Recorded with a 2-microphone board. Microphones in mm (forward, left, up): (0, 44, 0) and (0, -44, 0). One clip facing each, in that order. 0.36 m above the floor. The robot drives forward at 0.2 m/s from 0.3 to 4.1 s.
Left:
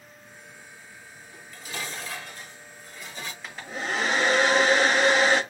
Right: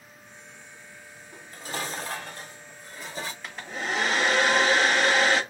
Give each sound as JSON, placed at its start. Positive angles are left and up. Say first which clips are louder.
{"t": 1.3, "sound": "dishes clattering", "louder": "right 3 dB", "side_deg": -40, "distance_m": 0.6}
{"t": 3.4, "sound": "a hair dryer", "louder": "left 2 dB", "side_deg": 0, "distance_m": 1.0}